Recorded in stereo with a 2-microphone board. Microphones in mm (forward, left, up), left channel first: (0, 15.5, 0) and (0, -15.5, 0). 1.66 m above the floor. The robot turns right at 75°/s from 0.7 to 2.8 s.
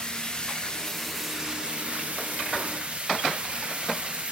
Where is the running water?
150° left, 0.7 m; by 4.3 s 55° right, 0.7 m.